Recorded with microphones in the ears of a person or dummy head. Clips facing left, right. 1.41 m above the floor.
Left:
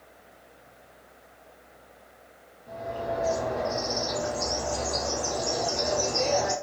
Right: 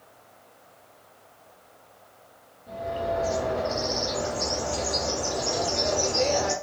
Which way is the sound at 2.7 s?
Centre (ahead or behind).